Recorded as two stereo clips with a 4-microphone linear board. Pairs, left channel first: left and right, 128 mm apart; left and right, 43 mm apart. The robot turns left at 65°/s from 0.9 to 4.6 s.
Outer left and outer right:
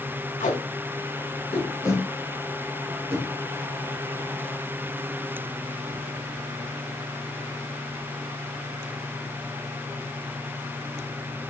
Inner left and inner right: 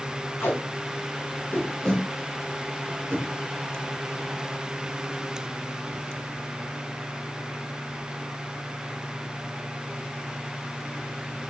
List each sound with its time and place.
0.4 s tape being pulled: 80° left, 1.9 m; by 3.3 s 60° right (ahead or behind), 1.9 m